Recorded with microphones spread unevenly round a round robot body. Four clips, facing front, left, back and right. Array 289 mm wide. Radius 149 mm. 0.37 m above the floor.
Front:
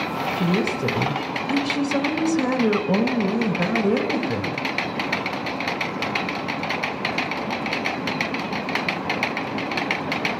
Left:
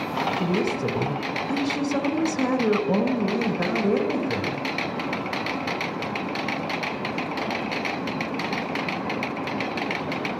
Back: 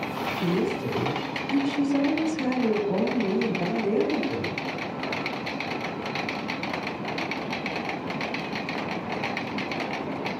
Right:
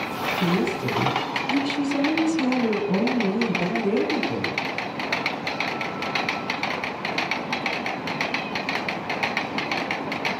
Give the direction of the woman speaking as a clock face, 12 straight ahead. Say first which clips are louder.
Right 4 dB, front 3 dB; 11 o'clock.